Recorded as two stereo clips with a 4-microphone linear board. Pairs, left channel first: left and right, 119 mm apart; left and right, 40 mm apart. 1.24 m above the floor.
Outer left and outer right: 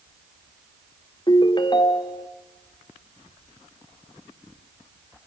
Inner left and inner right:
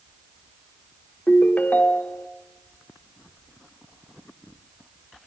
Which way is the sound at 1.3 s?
40° left (ahead or behind).